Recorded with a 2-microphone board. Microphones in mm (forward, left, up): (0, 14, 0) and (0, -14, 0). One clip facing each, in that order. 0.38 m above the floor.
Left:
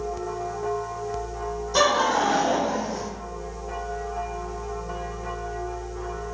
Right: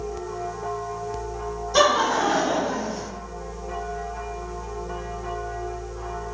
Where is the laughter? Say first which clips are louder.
Right 1 dB; 5° right (ahead or behind), 1.2 m; by 3.1 s 35° left (ahead or behind), 1.2 m.